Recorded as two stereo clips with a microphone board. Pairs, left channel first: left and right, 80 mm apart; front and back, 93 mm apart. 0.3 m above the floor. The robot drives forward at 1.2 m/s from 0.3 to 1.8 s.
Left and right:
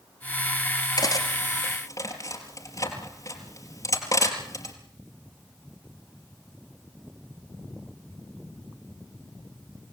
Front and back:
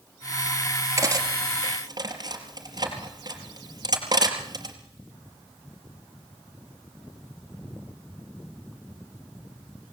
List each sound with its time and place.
1.0 s cutlery clinking: 125° left, 3.5 m; by 4.8 s 135° left, 4.5 m